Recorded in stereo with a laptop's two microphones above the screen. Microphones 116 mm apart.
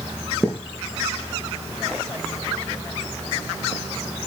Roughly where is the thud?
Centre.